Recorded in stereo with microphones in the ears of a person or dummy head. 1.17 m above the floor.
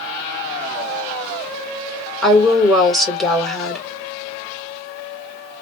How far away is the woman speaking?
About 1.3 m.